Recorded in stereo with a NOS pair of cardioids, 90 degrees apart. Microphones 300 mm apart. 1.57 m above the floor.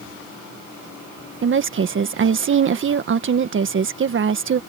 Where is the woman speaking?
40° right.